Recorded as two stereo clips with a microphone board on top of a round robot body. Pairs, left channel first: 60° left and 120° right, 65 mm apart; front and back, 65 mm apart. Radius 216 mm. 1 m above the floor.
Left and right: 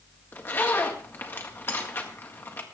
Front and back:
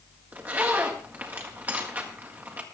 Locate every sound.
0.3 s a zipper: 115° left, 1.6 m